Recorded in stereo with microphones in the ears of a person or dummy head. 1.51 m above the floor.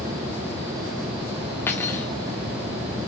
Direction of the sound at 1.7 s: 15° left (ahead or behind).